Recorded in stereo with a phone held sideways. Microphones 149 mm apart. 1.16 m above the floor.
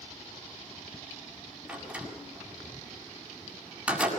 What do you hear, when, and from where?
1.7 s a door slam: 10° right (ahead or behind), 7 m